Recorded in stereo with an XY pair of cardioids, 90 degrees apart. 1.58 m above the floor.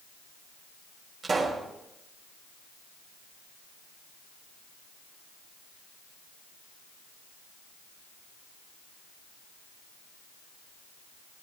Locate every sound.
1.2 s a pop: 45° right, 5.5 m